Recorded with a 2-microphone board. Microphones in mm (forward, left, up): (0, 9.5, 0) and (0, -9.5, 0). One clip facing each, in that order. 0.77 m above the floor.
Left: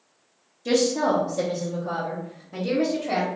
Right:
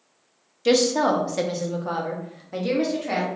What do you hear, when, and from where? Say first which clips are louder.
0.7 s a woman speaking: right 2 dB; 55° right (ahead or behind), 0.7 m; by 3.3 s 30° right (ahead or behind), 1.5 m